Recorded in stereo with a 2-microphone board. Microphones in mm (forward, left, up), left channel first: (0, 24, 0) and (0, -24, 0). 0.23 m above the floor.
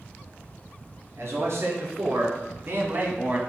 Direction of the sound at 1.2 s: 65° right (ahead or behind).